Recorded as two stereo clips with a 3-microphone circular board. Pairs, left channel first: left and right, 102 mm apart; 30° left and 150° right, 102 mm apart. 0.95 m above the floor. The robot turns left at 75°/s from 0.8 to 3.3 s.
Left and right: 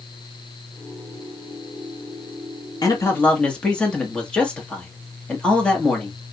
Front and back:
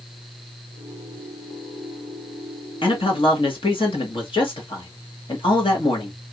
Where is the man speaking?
50° left, 1.3 m; by 6.2 s 10° left, 1.3 m.